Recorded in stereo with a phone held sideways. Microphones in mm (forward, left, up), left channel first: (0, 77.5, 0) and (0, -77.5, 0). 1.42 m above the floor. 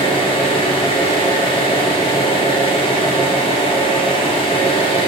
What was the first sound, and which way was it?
An engine running, 40° left (ahead or behind).